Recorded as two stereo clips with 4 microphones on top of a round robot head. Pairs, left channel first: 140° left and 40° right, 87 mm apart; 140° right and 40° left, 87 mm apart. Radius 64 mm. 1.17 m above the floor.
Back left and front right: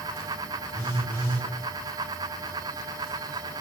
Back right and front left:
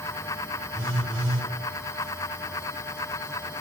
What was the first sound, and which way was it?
A phone buzzing, 85° left.